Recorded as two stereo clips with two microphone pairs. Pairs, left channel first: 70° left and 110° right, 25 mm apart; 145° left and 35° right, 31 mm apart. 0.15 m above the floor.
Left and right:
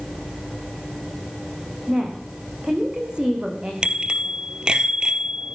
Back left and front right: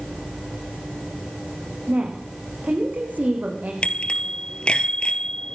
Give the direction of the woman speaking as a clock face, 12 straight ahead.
2 o'clock.